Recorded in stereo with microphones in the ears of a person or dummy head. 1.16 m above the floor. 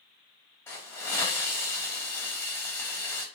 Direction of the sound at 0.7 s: 10° left (ahead or behind).